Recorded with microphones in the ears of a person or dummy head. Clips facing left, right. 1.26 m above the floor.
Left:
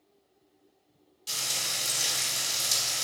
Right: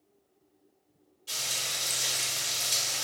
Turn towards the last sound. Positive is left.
turn(degrees=80)